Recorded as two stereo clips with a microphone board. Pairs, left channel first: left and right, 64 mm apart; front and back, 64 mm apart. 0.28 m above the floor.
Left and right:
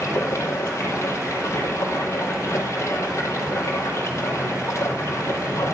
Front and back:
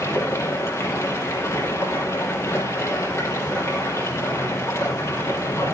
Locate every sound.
0.0 s running water: 45° left, 5 m